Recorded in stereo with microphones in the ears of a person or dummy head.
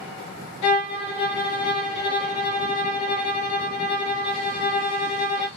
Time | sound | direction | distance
0.6 | a violin | 90° left | 0.6 m